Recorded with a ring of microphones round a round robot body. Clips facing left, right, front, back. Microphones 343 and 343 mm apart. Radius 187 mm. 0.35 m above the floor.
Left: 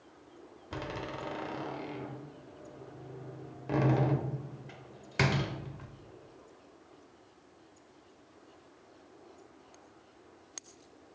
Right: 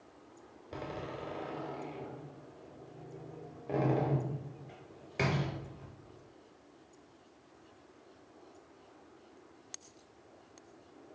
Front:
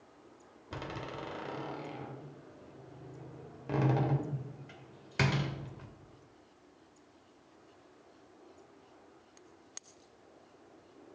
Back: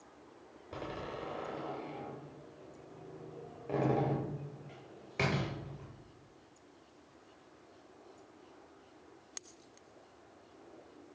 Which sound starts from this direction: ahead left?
A door slam, at 0.7 s.